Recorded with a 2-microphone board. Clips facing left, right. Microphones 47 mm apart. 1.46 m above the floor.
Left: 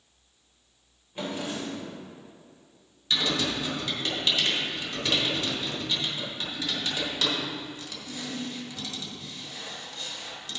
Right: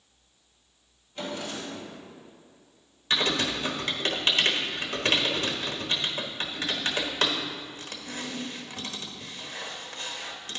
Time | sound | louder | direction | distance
1.1 | a drawer | left 2 dB | 20° left (ahead or behind) | 2.5 m
3.1 | typing on a keyboard | right 1 dB | 45° right (ahead or behind) | 1.1 m